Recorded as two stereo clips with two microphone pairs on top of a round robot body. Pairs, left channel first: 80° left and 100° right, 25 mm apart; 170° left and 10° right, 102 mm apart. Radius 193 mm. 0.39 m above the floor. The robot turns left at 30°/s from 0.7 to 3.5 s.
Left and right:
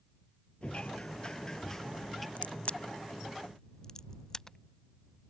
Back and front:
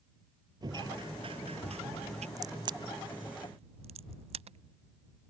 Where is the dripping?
40° left; by 2.3 s 5° right.